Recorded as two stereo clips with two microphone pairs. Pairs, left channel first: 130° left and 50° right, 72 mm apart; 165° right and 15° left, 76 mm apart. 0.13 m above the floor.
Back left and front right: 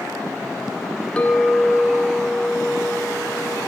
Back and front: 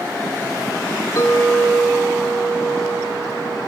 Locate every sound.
1.2 s a clink: 160° right, 1.3 m